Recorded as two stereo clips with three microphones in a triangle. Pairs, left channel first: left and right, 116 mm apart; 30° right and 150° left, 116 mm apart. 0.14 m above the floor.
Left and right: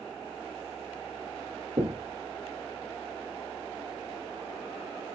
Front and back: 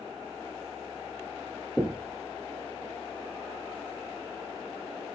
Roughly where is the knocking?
Behind right.